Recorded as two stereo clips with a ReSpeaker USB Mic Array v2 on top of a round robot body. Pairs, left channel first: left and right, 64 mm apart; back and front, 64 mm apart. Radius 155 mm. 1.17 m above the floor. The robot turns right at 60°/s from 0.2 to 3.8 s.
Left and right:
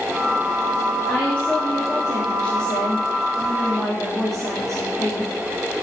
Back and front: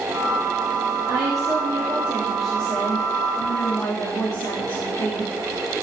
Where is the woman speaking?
10° left, 3.5 m; by 5.3 s 175° left, 3.5 m.